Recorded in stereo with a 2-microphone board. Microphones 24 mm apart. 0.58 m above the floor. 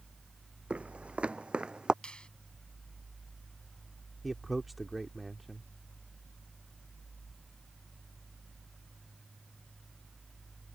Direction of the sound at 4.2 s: 5° right (ahead or behind).